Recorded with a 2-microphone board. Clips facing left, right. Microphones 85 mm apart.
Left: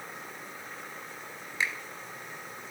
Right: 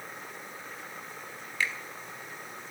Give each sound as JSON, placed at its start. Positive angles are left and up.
{"t": 1.6, "sound": "a finger snap", "side_deg": 20, "distance_m": 0.8}